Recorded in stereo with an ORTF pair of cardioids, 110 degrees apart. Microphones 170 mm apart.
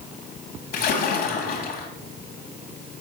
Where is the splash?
70° left, 2 m.